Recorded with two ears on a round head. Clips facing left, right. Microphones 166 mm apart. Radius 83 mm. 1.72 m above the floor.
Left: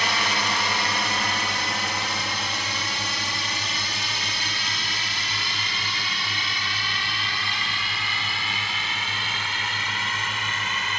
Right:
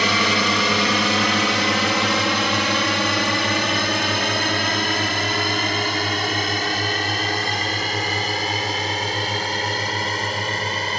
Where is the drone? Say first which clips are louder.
Right 7 dB; 65° right (ahead or behind); by 11.0 s 30° right (ahead or behind).